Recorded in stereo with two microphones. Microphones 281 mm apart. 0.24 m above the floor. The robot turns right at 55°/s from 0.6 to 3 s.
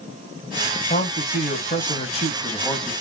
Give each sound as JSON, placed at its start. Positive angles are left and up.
{"t": 0.9, "sound": "a man speaking", "azimuth_deg": 70, "distance_m": 1.1}